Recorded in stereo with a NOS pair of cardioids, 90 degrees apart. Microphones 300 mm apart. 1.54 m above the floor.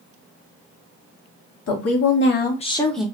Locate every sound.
1.7 s a woman speaking: 55° left, 1.2 m; by 3.0 s 5° right, 0.8 m